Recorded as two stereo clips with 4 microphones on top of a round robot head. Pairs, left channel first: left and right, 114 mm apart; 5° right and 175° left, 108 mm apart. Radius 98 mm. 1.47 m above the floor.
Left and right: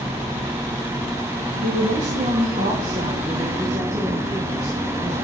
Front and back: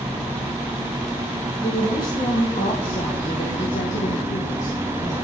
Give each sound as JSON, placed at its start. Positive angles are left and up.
{"t": 1.6, "sound": "a woman speaking", "azimuth_deg": -75, "distance_m": 1.5}